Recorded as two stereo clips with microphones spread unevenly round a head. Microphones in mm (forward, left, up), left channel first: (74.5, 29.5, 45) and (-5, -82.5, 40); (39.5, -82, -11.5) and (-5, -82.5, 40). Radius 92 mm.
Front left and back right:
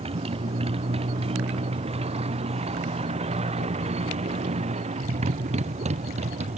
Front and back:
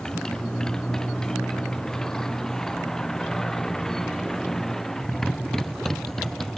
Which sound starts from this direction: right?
A motorcycle, at 0.0 s.